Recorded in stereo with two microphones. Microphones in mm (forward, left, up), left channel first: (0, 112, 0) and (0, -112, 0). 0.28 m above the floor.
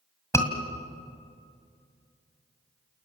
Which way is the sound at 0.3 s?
15° left (ahead or behind).